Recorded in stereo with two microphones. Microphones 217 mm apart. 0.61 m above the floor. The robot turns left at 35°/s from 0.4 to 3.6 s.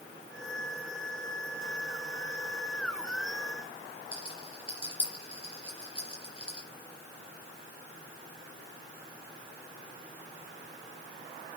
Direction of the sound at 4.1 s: 25° left (ahead or behind).